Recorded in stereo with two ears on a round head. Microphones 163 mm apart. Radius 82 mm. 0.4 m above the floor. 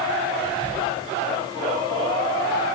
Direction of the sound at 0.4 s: 45° left (ahead or behind).